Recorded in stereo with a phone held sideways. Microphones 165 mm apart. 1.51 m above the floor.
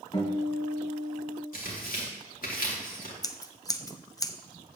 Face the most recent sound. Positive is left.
turn(degrees=25)  # may be behind; listen again after turning